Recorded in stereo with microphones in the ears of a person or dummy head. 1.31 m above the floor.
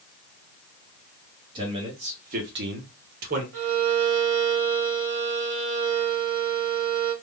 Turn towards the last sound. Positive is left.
turn(degrees=-60)  # may be behind; listen again after turning